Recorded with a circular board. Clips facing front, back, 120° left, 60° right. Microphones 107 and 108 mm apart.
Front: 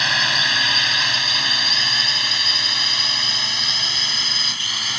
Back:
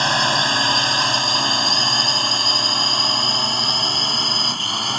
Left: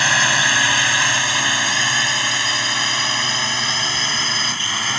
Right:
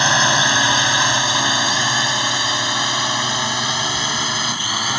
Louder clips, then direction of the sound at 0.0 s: Back 4 dB, right 3 dB; 125° right.